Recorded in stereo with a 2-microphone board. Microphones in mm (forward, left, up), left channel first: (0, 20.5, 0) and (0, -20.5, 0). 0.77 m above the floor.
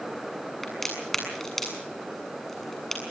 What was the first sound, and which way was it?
A crack, 5° left (ahead or behind).